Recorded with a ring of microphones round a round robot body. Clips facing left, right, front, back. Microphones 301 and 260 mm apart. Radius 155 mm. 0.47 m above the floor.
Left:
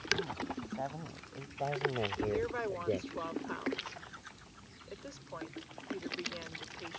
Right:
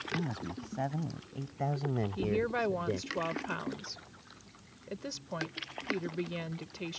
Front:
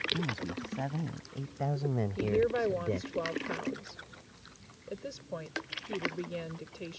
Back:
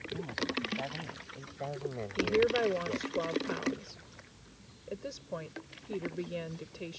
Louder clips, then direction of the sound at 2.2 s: Right 4 dB, back 2 dB; 90° right.